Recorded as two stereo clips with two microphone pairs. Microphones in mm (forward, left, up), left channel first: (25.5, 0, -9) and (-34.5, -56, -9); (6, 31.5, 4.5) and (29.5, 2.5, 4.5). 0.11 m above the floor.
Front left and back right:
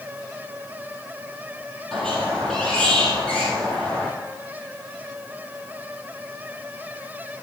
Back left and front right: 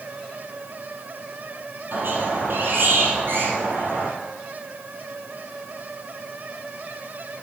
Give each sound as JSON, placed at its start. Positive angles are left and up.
{"t": 1.9, "sound": "a squeak", "azimuth_deg": -40, "distance_m": 1.9}